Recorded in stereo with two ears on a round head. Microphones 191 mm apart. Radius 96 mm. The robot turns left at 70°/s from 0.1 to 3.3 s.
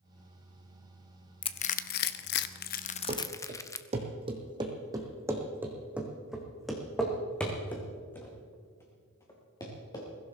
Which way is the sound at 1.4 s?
25° left (ahead or behind).